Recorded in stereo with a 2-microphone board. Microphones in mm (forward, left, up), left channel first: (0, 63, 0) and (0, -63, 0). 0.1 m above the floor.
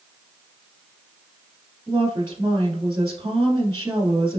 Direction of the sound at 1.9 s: 25° right (ahead or behind).